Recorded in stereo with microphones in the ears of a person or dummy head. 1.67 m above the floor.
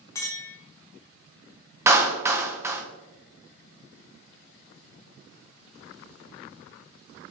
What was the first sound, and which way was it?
A clink, 25° left (ahead or behind).